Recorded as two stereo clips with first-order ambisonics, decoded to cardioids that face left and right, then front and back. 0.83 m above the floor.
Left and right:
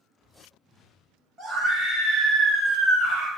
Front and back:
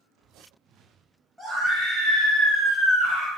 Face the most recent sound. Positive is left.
turn(degrees=-45)